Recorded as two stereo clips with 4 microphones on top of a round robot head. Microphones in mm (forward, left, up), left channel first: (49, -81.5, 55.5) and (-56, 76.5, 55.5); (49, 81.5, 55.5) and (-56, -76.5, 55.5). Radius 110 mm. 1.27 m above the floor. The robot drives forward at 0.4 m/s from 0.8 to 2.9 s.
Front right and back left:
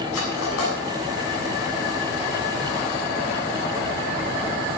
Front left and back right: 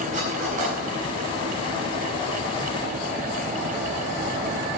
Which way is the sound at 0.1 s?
70° right.